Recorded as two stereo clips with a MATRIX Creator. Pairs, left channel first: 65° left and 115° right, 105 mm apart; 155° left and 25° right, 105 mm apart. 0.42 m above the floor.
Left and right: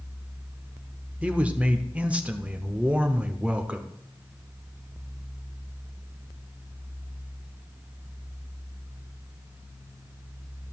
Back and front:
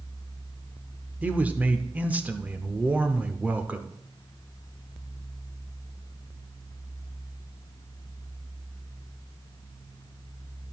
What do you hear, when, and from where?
1.2 s a man speaking: 65° right, 0.8 m